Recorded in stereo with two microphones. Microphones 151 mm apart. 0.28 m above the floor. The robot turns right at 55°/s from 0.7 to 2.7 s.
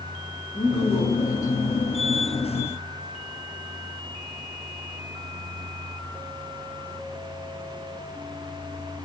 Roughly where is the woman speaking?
Left.